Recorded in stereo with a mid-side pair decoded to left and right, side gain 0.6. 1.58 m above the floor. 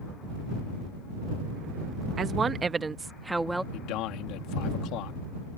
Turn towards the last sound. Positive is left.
turn(degrees=70)